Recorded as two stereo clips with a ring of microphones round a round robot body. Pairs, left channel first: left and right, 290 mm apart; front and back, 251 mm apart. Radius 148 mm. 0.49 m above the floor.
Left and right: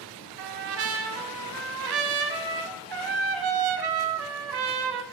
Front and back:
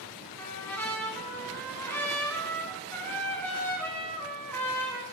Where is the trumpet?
80° right, 0.7 m.